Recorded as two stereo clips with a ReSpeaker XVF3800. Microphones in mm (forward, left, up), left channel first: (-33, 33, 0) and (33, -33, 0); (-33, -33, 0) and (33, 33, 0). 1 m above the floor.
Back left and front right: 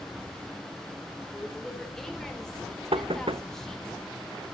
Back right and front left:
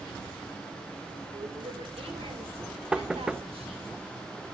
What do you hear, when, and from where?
1.3 s a woman speaking: 50° left, 3.5 m
2.9 s knocking: 35° right, 0.6 m